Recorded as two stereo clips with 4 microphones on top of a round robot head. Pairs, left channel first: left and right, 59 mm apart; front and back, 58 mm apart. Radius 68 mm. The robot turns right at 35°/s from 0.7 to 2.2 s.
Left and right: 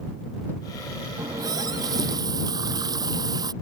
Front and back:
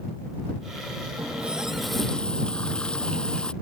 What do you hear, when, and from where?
1.2 s a running tap: 115° right; by 3.5 s 80° right